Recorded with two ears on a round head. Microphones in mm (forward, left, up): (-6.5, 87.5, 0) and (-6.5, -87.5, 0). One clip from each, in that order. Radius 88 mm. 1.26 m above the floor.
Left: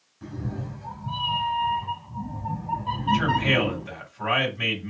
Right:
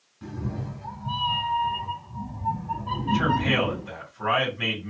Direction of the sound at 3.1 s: 25° left (ahead or behind).